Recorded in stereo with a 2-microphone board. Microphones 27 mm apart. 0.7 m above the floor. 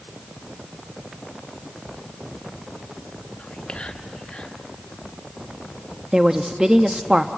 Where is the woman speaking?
25° right (ahead or behind), 0.6 m.